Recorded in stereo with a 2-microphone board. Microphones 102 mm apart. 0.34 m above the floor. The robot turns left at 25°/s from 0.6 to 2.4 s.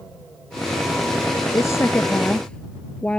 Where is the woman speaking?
30° left (ahead or behind); by 3.2 s 10° left (ahead or behind).